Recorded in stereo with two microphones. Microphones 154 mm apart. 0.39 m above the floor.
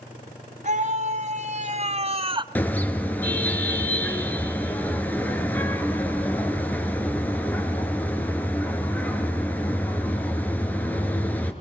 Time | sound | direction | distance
0.6 | a scream | 55° right (ahead or behind) | 3.5 m
2.5 | a car horn | 10° left (ahead or behind) | 2.5 m